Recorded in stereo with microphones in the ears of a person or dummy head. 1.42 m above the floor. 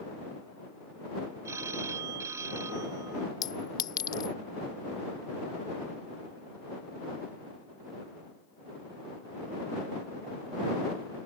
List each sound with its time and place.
1.4 s a phone ringing: 10° right (ahead or behind)
3.4 s a clink: 30° left (ahead or behind)